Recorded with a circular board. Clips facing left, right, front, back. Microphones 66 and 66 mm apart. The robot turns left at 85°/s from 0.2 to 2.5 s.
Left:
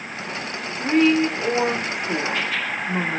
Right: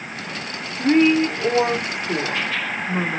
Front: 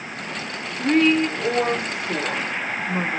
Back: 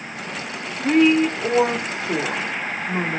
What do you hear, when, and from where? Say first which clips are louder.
0.8 s a woman speaking: right 2 dB, back 2 dB; 75° right, 1.2 m; by 3.2 s 140° left, 1.2 m